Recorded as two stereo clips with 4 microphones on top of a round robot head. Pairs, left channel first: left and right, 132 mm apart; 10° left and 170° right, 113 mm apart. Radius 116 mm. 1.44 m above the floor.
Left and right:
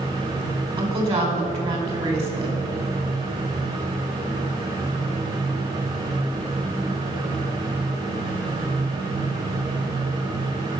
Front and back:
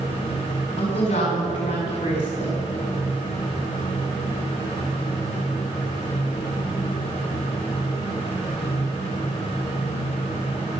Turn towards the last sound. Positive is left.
turn(degrees=-45)